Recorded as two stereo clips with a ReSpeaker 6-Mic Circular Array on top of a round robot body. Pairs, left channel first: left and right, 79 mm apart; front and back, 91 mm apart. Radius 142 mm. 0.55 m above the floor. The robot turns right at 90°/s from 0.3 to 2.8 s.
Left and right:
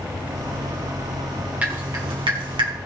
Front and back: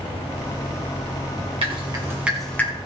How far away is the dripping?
About 2.5 m.